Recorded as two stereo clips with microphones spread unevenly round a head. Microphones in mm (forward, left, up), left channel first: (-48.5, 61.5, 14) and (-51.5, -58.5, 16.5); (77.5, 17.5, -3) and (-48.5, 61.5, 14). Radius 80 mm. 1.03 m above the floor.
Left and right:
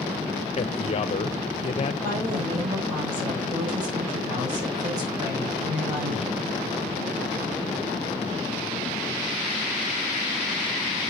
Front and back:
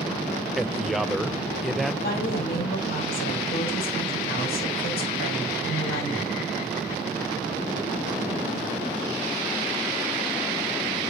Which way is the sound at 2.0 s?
25° right.